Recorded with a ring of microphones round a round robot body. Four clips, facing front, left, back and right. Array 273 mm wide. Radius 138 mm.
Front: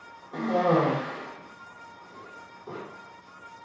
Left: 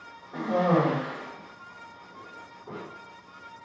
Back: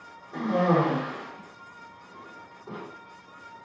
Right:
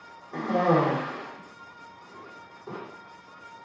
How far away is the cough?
About 1.2 m.